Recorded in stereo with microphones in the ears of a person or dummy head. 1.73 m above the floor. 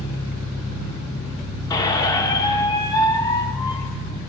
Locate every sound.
0.0 s an engine running: 70° left (ahead or behind), 7 m
1.7 s a squeak: 20° left (ahead or behind), 1.2 m